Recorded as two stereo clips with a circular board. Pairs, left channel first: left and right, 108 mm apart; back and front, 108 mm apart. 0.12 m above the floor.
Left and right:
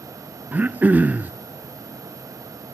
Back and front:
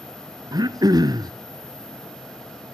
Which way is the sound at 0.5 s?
25° right.